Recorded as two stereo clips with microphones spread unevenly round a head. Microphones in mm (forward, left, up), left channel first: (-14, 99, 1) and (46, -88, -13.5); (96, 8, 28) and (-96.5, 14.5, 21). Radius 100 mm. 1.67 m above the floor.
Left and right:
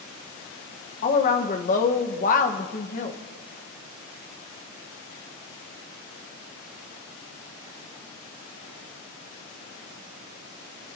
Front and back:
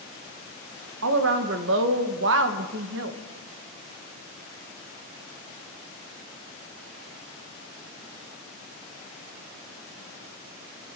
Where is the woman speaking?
155° left, 1.2 m.